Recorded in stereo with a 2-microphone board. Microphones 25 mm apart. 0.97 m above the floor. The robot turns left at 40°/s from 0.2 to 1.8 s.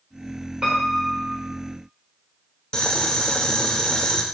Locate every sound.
0.6 s a piano: 35° right (ahead or behind), 4 m; by 1.4 s 5° right (ahead or behind), 4 m
2.7 s boiling: 30° left (ahead or behind), 0.9 m